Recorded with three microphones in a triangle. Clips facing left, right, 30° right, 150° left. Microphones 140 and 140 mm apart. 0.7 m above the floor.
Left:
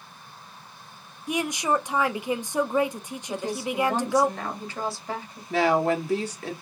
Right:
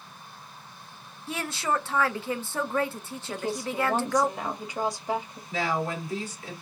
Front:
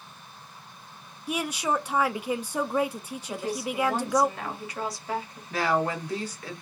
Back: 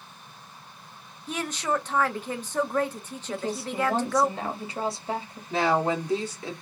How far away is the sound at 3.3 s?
About 1.1 m.